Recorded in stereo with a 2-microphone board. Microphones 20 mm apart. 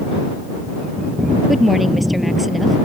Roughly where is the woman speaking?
Centre.